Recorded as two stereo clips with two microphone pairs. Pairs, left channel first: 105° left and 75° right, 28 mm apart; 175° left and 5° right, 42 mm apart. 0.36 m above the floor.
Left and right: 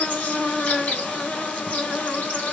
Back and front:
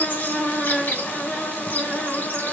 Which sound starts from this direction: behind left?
An insect, at 0.0 s.